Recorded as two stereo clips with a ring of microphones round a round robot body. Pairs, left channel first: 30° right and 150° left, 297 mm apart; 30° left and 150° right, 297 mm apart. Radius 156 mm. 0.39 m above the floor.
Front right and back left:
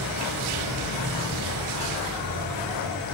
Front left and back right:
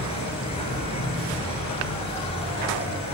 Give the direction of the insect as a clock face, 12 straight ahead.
1 o'clock.